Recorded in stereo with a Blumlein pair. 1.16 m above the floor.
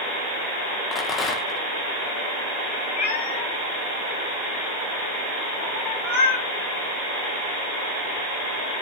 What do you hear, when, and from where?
0.9 s a rattle: 25° left, 1.2 m
3.0 s a cat meowing: 55° left, 2.5 m